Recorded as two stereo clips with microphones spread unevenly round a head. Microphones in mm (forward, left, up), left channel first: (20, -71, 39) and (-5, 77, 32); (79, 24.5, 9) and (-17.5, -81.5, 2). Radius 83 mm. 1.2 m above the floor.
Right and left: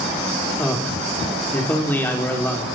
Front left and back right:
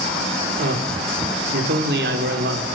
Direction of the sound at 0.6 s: 160° right.